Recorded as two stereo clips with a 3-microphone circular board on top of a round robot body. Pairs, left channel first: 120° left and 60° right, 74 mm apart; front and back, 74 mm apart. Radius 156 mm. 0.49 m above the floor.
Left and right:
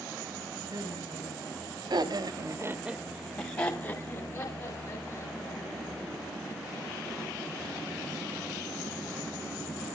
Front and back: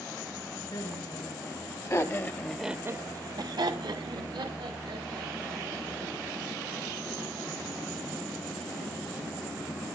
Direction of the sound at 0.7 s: 30° right.